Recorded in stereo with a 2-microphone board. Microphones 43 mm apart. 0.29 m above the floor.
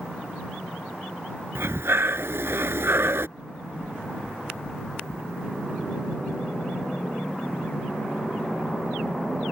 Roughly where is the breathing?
Right.